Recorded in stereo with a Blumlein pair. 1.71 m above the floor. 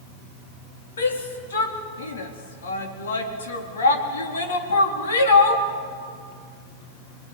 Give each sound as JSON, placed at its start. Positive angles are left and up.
{"t": 1.0, "sound": "a shout", "azimuth_deg": 65, "distance_m": 4.0}